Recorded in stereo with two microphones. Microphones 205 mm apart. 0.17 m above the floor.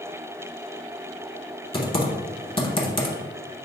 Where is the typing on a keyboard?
25° left (ahead or behind), 0.8 m.